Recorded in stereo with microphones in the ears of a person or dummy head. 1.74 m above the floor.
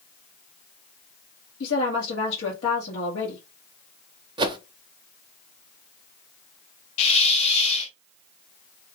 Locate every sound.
1.6 s a woman speaking: 85° left, 1.4 m
4.4 s a whoosh: 25° right (ahead or behind), 0.6 m
7.0 s a hiss: 40° left (ahead or behind), 0.7 m